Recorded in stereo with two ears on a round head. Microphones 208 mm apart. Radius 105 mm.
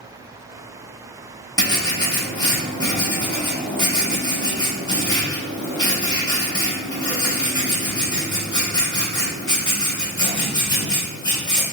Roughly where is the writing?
Centre.